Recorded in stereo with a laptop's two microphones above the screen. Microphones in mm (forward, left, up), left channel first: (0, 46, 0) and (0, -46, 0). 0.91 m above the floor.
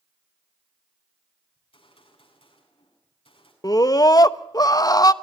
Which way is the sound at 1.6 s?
80° left.